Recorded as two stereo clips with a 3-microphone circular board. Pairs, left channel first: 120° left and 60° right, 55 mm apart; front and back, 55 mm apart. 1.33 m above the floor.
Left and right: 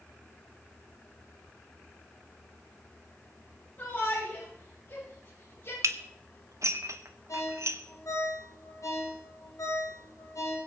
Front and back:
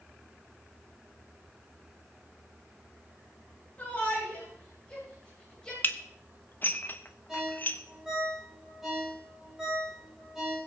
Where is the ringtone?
100° left, 6 m.